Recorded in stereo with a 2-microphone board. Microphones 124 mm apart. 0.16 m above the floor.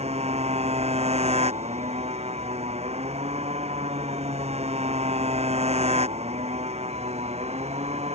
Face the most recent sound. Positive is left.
turn(degrees=-55)  # may be behind; listen again after turning